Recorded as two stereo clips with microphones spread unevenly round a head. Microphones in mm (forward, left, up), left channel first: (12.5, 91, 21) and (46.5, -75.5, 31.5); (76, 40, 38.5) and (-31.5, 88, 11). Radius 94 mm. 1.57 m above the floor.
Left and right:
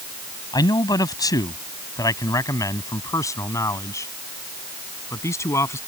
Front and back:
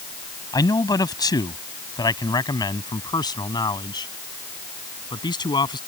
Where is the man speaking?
30° left; by 5.8 s 25° left.